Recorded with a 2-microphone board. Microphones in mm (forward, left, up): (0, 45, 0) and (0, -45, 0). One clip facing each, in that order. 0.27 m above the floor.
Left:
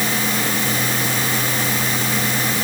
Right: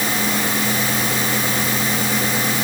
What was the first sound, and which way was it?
Only background noise.